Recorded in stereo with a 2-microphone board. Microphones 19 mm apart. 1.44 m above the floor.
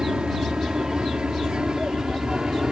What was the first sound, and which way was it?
An aircraft, 55° right (ahead or behind).